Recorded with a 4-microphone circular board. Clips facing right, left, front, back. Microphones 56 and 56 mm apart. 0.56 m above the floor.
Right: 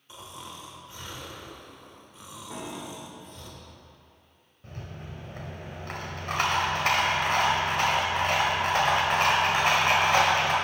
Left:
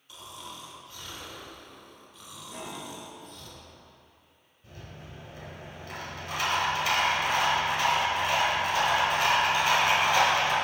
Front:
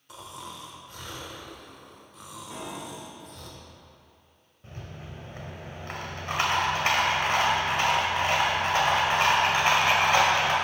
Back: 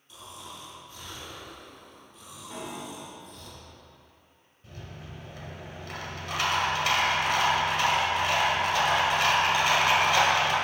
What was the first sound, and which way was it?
Snoring, 25° right.